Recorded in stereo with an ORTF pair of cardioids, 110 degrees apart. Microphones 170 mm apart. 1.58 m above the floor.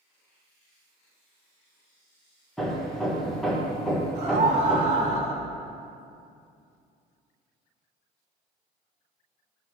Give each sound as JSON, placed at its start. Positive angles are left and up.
{"t": 2.6, "sound": "hammering", "azimuth_deg": 0, "distance_m": 1.6}
{"t": 4.2, "sound": "a scream", "azimuth_deg": -40, "distance_m": 3.0}